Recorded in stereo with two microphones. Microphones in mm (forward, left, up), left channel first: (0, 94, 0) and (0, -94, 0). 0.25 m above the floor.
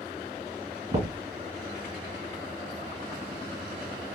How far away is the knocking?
About 1.5 m.